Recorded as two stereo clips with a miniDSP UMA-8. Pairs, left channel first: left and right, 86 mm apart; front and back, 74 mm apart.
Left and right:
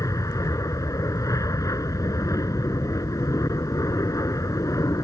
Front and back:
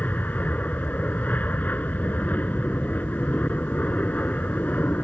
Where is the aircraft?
60° left.